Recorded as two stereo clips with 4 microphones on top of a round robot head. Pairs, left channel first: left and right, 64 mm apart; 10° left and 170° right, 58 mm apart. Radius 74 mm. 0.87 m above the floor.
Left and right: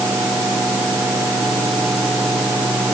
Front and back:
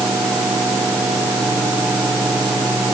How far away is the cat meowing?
No cat meowing in this recording.